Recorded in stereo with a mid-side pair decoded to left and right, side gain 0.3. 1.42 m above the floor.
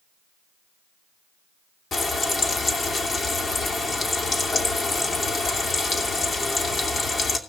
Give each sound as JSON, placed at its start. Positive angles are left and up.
{"t": 1.9, "sound": "frying", "azimuth_deg": 60, "distance_m": 3.0}